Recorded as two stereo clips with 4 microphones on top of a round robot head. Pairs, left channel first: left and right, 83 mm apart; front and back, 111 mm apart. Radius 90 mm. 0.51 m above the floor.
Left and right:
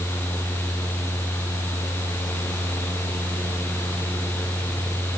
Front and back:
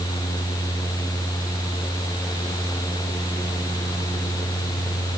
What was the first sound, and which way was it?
Only background noise.